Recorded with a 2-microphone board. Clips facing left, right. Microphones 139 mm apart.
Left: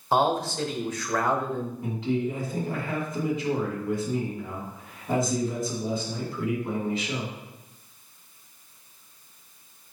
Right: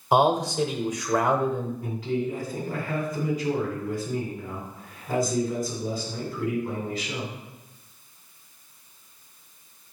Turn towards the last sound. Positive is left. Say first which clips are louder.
# left 3 dB
turn(degrees=20)  # may be behind; listen again after turning